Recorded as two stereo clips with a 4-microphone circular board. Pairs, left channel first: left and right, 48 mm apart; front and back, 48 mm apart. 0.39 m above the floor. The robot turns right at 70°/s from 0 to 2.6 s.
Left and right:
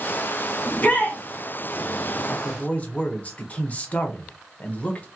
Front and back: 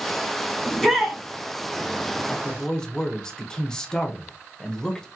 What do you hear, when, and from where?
0.7 s a shout: 70° left, 1.3 m; by 1.2 s 110° left, 1.3 m
2.3 s a man speaking: 45° left, 0.9 m; by 5.1 s 65° left, 0.9 m